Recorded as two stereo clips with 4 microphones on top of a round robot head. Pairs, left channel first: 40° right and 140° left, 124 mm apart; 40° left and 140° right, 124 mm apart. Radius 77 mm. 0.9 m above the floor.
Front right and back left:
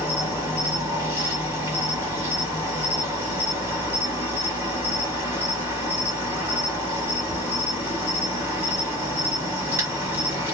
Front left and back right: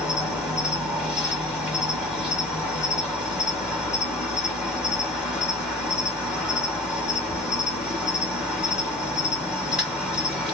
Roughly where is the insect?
Behind left.